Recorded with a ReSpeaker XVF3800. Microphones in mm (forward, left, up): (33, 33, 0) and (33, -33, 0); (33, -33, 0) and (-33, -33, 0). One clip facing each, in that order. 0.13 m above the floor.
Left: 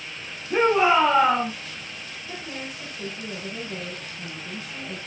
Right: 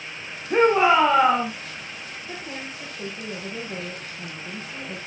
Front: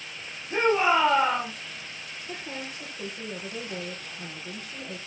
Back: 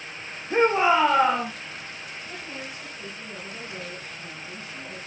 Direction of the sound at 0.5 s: 120° right.